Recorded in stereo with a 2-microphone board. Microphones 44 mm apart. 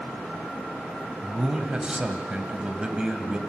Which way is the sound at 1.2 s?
20° right (ahead or behind).